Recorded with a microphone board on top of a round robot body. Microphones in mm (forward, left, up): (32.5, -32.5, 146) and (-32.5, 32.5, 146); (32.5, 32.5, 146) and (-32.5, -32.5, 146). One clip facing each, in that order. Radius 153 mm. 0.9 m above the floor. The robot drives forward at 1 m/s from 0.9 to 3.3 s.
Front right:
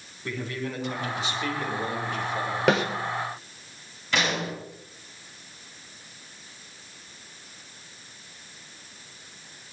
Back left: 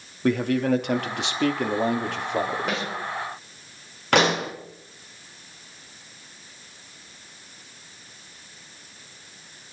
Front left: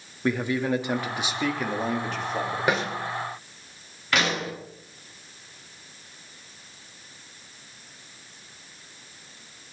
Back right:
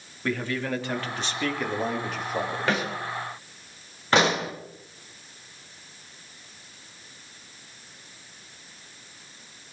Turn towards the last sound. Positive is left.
turn(degrees=165)